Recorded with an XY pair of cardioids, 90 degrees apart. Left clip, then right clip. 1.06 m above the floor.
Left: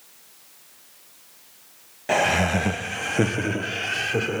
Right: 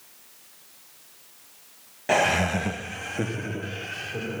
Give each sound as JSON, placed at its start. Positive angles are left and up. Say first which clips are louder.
{"t": 2.1, "sound": "laughter", "louder": "left 1 dB", "azimuth_deg": -10, "distance_m": 0.8}